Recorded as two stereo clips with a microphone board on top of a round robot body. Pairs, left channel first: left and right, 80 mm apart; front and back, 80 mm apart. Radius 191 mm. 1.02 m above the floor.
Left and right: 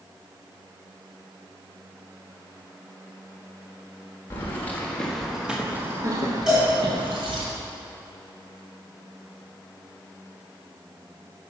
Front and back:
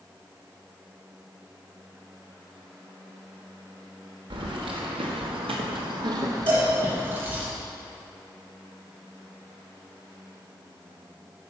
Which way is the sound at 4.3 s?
155° left.